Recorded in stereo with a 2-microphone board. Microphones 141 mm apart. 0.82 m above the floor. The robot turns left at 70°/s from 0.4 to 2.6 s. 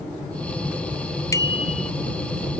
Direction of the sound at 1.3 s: 160° left.